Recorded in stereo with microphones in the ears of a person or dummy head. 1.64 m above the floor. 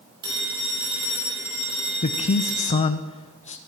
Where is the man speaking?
35° left (ahead or behind), 0.5 m.